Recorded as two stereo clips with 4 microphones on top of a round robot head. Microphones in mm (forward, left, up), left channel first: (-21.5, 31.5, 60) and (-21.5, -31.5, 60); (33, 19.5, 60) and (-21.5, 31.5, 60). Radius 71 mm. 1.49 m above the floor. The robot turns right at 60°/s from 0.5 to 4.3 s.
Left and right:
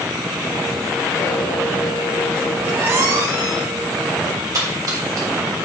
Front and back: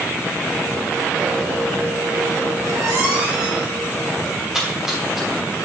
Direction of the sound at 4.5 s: 110° right.